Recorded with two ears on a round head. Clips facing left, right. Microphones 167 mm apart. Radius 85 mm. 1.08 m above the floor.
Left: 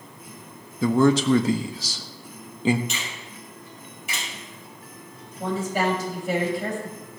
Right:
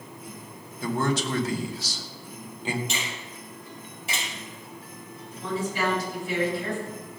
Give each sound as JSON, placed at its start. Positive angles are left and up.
{"t": 0.8, "sound": "a man speaking", "side_deg": 70, "distance_m": 1.2}
{"t": 2.9, "sound": "a finger snap", "side_deg": -30, "distance_m": 6.0}
{"t": 5.4, "sound": "a woman speaking", "side_deg": 45, "distance_m": 7.5}